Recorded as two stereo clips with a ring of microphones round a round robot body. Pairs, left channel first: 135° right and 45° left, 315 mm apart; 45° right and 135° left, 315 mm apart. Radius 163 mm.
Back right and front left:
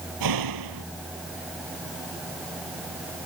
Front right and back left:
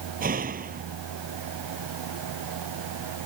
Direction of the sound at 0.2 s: 70° left.